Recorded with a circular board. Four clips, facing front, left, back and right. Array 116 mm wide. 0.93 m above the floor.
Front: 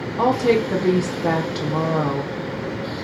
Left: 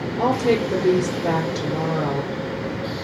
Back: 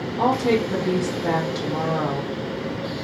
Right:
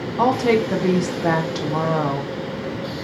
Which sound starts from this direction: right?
A woman speaking, at 0.2 s.